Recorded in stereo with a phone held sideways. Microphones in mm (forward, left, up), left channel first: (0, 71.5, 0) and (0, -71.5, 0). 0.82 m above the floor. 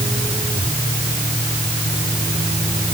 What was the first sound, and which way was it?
Only background noise.